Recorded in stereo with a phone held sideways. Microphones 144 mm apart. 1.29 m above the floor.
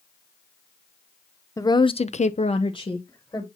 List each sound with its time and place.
1.6 s a woman speaking: 25° left (ahead or behind), 0.9 m; by 3.5 s 20° left (ahead or behind), 1.6 m